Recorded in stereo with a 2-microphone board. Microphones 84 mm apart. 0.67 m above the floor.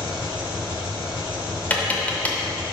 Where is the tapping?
20° left (ahead or behind), 0.8 m.